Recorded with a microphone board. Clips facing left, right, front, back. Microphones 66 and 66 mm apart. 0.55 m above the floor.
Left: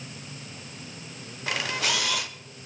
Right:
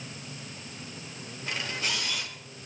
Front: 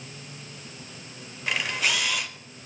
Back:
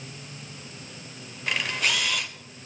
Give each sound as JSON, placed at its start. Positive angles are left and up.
{"t": 1.5, "sound": "a camera shutter", "azimuth_deg": 85, "distance_m": 0.9}